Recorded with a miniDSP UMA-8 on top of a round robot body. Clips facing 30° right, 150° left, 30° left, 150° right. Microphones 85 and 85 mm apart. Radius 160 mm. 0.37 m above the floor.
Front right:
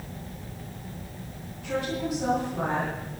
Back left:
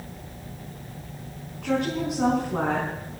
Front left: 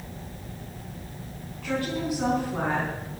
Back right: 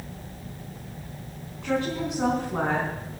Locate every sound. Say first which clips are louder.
1.6 s a woman speaking: back left 4 dB, back right 2 dB; 140° left, 5 m; by 2.9 s 150° left, 5.5 m